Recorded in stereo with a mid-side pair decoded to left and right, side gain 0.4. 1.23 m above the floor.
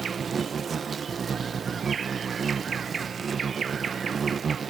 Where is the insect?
50° right.